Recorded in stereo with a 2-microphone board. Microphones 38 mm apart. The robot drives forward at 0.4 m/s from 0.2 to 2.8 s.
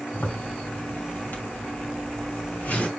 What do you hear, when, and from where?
0.1 s a zipper: 55° left (ahead or behind), 3.5 m; by 2.9 s 45° left (ahead or behind), 4 m